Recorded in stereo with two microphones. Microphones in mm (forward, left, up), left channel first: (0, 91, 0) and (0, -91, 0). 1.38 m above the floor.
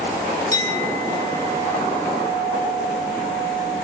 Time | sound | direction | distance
0.5 | a clink | 20° left (ahead or behind) | 4 m